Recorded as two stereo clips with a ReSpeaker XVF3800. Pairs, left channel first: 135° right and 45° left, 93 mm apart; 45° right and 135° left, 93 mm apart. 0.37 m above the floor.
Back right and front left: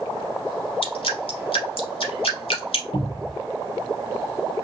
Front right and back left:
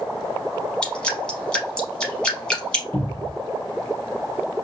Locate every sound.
0.8 s dripping: 125° right, 0.9 m
2.9 s a cupboard door: 115° right, 0.8 m